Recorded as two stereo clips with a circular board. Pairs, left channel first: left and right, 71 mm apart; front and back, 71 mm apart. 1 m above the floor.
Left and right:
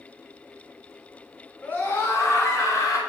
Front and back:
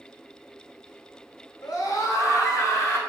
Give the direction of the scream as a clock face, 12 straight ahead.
11 o'clock.